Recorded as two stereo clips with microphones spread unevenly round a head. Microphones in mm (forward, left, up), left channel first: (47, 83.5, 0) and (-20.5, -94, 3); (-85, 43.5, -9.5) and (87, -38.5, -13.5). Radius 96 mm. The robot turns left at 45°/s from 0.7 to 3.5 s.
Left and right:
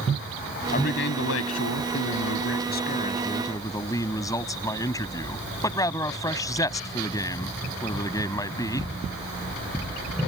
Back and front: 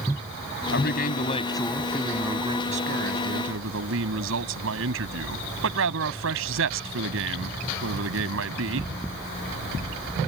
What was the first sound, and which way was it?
A man speaking, 120° left.